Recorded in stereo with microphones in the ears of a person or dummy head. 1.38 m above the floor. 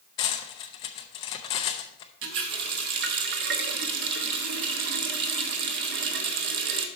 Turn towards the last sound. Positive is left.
turn(degrees=-60)  # may be behind; listen again after turning